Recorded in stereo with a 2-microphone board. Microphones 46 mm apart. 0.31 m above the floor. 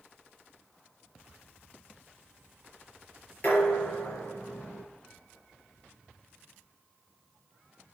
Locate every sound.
3.4 s dishes clattering: 40° left (ahead or behind), 4 m